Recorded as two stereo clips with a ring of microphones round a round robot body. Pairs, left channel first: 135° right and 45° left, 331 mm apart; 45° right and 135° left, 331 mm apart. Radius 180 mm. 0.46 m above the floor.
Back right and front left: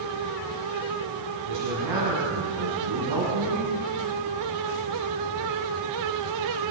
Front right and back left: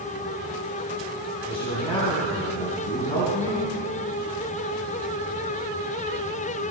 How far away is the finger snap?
I don't hear a finger snap.